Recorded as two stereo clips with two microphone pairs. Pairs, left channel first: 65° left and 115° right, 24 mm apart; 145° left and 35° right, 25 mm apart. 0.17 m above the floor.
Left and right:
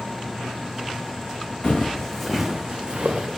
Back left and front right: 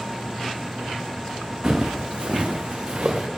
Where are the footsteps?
15° left, 0.6 m; by 3.3 s 75° right, 0.7 m.